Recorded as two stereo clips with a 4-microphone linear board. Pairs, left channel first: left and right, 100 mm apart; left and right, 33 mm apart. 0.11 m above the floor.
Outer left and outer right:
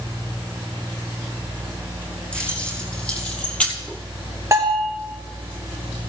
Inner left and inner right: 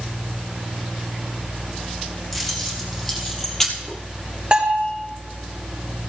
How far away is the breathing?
No breathing in this recording.